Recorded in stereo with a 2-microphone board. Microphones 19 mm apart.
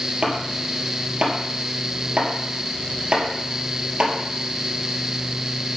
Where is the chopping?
60° right (ahead or behind), 2.5 m.